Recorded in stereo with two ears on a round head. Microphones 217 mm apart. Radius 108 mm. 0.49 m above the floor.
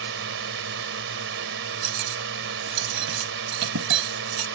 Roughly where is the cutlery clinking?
Right.